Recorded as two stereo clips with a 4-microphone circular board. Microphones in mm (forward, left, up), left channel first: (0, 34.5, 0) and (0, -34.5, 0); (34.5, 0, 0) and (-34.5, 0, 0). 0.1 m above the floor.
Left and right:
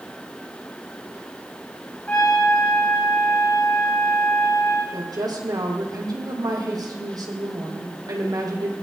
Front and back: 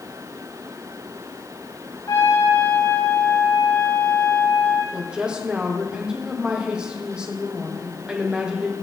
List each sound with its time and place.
2.1 s a trumpet: 25° left, 9 m
4.9 s a woman speaking: 100° right, 3.5 m